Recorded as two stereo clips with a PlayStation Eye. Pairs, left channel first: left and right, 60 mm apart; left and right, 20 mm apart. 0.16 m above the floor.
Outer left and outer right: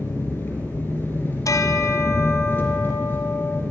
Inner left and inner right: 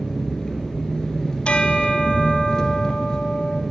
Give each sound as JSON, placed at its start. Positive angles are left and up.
{"t": 0.0, "sound": "an engine running", "side_deg": 35, "distance_m": 2.5}
{"t": 1.4, "sound": "a bell", "side_deg": 65, "distance_m": 1.1}